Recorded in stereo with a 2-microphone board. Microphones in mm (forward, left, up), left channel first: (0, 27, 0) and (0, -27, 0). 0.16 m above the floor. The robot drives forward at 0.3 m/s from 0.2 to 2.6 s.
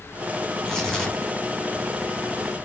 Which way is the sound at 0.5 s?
10° left (ahead or behind).